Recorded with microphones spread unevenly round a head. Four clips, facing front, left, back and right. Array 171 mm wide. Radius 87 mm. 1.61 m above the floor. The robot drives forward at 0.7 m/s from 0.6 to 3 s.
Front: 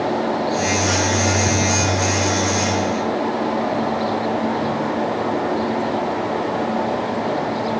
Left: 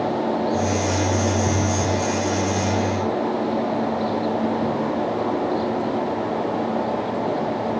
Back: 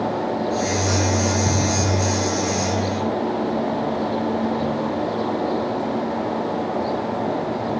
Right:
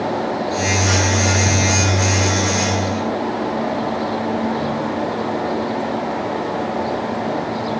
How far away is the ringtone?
No ringtone in this recording.